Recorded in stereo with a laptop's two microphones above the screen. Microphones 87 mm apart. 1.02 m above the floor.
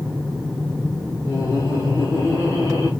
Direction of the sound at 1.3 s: 30° left (ahead or behind).